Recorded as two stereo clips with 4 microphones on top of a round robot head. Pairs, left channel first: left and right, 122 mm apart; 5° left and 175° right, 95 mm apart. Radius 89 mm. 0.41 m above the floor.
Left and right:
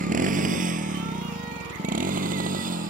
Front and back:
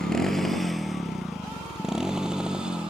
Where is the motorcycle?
80° right; by 2.9 s 90° right.